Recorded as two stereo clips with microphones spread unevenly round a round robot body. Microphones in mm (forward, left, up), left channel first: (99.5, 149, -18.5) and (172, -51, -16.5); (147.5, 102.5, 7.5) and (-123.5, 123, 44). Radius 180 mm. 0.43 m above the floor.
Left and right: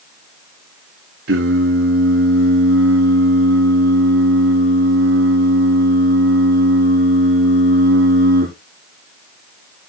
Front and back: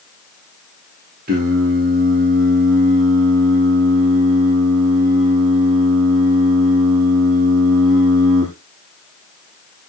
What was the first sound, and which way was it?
Singing, 115° right.